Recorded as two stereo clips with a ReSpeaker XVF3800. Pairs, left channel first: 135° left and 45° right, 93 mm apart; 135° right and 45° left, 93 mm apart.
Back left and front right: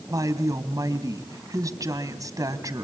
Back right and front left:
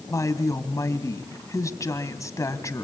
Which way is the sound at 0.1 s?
85° right.